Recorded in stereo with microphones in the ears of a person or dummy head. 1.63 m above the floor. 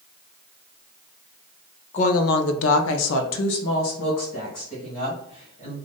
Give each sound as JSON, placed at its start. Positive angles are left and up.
{"t": 1.9, "sound": "a woman speaking", "side_deg": 40, "distance_m": 0.7}